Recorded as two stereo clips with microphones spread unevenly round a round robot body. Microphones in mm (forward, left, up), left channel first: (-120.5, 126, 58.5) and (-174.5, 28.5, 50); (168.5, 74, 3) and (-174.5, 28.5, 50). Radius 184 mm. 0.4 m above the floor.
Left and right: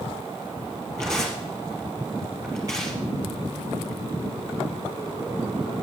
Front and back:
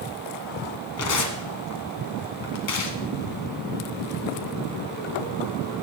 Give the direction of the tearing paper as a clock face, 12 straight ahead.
1 o'clock.